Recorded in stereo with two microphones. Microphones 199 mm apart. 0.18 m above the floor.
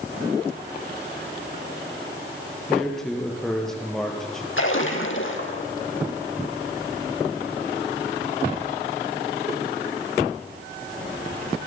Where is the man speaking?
5° left (ahead or behind), 3.5 m.